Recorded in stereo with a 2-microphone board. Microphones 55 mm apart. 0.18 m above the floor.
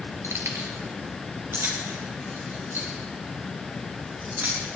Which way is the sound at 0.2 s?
65° right (ahead or behind).